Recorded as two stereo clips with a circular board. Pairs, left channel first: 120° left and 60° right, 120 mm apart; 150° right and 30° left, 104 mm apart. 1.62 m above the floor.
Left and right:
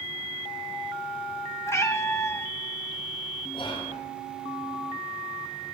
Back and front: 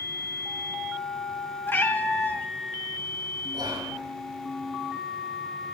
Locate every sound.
1.7 s a cat meowing: 160° left, 1.2 m
3.5 s whispering: 75° left, 10 m